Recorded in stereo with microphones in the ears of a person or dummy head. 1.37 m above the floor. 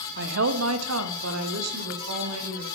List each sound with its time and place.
0.2 s a woman speaking: 55° right (ahead or behind), 0.6 m; by 2.6 s 80° right, 2 m